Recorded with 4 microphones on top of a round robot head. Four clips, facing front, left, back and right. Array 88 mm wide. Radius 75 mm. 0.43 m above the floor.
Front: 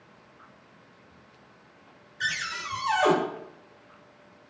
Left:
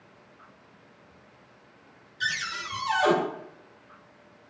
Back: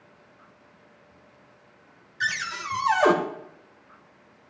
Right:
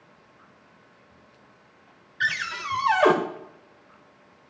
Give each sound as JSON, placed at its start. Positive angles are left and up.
{"t": 2.2, "sound": "a cupboard door", "azimuth_deg": -125, "distance_m": 1.5}